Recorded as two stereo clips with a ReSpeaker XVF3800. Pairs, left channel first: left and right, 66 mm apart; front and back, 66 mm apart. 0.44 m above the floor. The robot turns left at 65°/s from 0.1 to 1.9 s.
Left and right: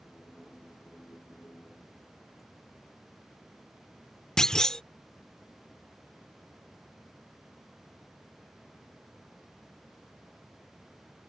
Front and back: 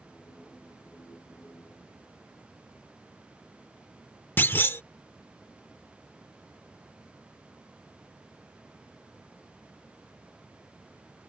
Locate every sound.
4.4 s a clunk: 20° left